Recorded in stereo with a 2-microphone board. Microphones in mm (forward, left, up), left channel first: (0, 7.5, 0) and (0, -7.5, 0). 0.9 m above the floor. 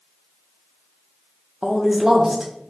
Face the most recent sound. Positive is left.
turn(degrees=-25)  # may be behind; listen again after turning